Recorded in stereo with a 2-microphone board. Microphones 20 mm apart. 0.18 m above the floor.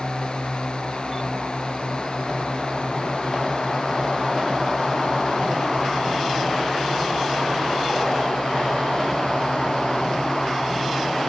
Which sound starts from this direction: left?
A drone, at 0.0 s.